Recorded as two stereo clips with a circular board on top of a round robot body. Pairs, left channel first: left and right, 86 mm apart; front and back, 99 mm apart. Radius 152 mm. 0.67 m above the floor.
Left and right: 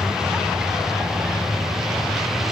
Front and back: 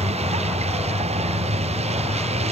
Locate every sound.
0.0 s a vehicle: 175° right